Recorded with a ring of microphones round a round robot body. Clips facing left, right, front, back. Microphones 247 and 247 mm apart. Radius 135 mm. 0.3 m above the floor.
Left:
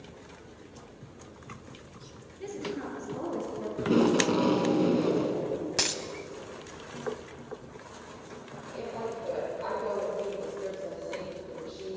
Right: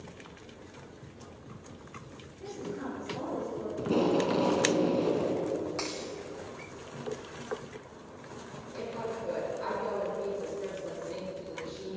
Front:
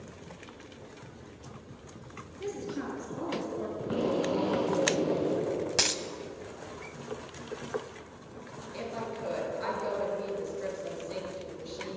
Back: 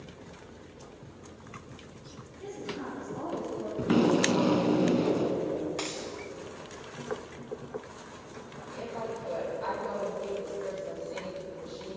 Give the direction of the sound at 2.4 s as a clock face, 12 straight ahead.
11 o'clock.